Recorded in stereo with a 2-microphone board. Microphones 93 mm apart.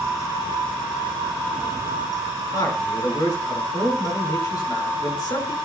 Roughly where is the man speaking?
Left.